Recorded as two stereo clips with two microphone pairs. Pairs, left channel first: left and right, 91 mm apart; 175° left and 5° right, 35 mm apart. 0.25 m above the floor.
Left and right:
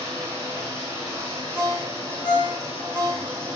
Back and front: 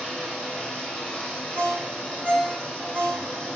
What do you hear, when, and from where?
0.0 s running water: 150° right, 4 m
1.6 s a ringtone: 125° left, 4.5 m